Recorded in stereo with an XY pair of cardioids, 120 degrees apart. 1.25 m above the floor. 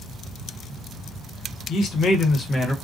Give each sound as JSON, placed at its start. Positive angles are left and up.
{"t": 1.7, "sound": "a man speaking", "azimuth_deg": 60, "distance_m": 1.0}